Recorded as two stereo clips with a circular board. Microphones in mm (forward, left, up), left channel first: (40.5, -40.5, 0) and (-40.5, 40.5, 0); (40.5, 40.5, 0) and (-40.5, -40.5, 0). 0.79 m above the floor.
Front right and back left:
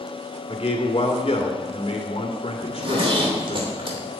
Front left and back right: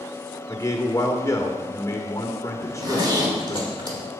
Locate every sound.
0.5 s a man speaking: 15° right, 2 m
2.6 s a zipper: 175° left, 2.5 m